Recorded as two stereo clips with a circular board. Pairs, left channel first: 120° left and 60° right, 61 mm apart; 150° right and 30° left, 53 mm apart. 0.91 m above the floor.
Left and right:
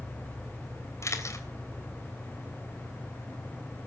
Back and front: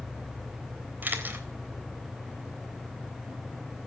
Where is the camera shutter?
80° left, 3.5 m.